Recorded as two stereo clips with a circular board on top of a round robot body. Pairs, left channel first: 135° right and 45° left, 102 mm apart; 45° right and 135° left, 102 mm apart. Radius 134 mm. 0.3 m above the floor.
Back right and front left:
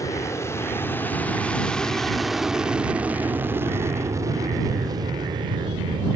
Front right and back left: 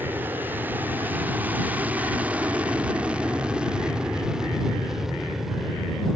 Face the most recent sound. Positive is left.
turn(degrees=45)